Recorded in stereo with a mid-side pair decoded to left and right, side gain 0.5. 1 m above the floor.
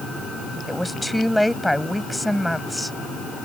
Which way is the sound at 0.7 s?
Straight ahead.